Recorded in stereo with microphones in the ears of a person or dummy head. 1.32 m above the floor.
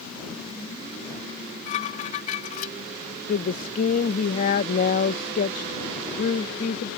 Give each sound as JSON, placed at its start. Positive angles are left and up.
{"t": 1.3, "sound": "dishes clattering", "side_deg": 50}
{"t": 3.3, "sound": "a woman speaking", "side_deg": 50}